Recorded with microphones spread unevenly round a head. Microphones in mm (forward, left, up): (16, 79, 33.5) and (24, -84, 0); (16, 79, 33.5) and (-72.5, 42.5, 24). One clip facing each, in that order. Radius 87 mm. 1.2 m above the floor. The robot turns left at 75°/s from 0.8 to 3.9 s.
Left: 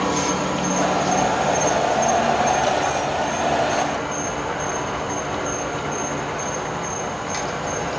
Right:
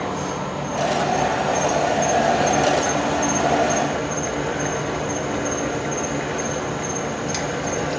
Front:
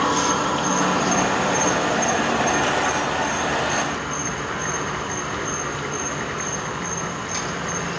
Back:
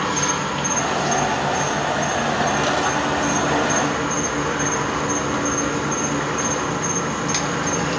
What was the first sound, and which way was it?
An insect, 80° left.